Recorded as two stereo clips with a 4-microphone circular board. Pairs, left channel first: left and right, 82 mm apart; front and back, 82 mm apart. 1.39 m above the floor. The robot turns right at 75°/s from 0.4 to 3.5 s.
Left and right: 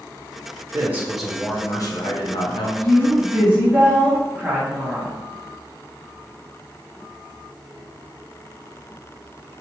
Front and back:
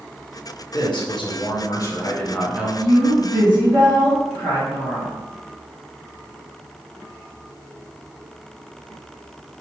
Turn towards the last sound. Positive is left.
turn(degrees=-170)